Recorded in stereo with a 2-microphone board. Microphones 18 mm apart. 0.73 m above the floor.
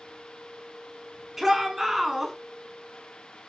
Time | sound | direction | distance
1.4 | a shout | 15° right (ahead or behind) | 6.5 m